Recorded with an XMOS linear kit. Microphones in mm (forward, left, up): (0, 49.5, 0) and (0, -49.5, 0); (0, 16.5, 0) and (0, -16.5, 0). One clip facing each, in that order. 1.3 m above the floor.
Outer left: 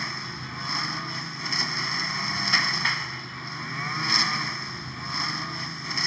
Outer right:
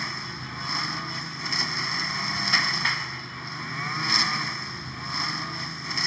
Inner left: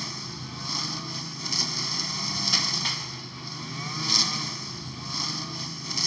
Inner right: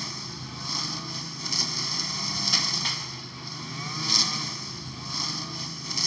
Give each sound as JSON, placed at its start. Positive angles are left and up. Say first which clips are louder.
{"t": 0.0, "sound": "a lawn mower", "louder": "even, even", "side_deg": 0}